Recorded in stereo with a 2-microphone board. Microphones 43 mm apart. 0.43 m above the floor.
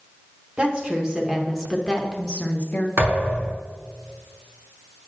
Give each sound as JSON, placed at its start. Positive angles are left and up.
{"t": 0.6, "sound": "a woman speaking", "side_deg": -30, "distance_m": 1.1}
{"t": 3.0, "sound": "a thud", "side_deg": -65, "distance_m": 3.5}